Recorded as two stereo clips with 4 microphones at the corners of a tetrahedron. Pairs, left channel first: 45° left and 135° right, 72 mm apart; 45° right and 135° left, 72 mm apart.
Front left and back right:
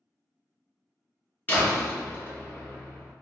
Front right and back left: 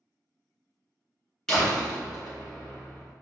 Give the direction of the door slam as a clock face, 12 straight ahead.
11 o'clock.